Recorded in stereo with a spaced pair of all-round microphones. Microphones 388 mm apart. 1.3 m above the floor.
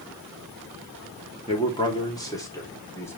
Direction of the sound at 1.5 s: 15° left (ahead or behind).